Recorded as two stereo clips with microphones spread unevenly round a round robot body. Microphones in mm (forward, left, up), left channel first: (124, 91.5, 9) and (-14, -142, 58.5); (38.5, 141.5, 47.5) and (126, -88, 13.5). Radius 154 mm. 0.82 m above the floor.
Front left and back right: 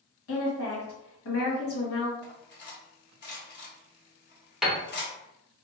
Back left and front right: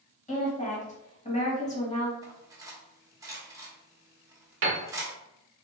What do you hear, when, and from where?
0.3 s a woman speaking: 45° left, 1.6 m
2.2 s cutlery clinking: 10° left, 1.2 m
4.6 s a piano: 30° right, 0.9 m